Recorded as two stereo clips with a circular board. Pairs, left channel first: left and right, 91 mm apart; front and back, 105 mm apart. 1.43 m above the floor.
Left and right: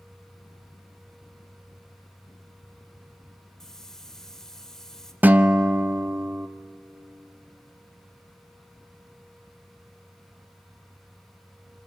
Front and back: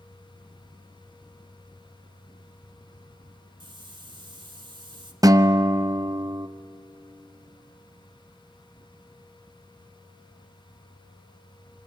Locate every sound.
3.6 s a hiss: 175° left, 1.4 m
5.2 s a guitar: 150° right, 0.6 m